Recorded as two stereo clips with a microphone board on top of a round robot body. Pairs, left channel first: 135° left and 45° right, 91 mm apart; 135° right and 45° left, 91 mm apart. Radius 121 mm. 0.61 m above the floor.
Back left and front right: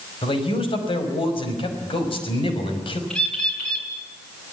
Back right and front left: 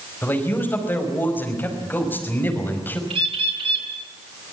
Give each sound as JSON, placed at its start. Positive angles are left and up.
{"t": 0.2, "sound": "a man speaking", "azimuth_deg": 155, "distance_m": 5.5}
{"t": 3.1, "sound": "a bird", "azimuth_deg": 55, "distance_m": 5.5}